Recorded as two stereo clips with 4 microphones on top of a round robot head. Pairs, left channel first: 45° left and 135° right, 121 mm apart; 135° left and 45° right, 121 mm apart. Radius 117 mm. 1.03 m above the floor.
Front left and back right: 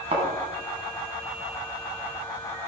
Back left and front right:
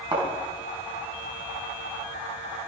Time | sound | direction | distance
0.1 | a thud | 95° right | 4.5 m